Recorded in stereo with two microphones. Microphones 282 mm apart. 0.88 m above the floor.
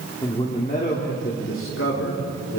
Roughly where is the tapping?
No tapping in this recording.